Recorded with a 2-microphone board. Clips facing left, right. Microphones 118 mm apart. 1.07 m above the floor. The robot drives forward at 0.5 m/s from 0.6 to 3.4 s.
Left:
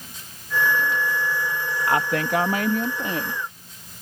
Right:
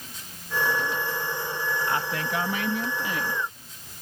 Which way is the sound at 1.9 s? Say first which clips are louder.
Left 6 dB; 65° left (ahead or behind).